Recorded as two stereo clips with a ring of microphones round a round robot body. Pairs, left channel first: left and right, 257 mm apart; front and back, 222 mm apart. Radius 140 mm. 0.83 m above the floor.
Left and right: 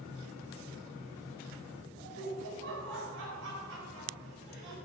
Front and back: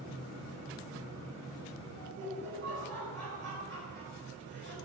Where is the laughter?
130° right, 4.5 m.